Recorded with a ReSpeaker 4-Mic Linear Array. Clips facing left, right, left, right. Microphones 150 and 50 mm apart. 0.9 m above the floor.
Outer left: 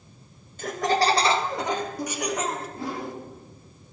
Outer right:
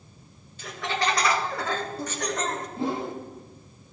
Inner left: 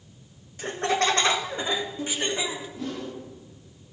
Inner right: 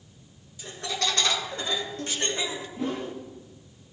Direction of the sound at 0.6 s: 50° left (ahead or behind).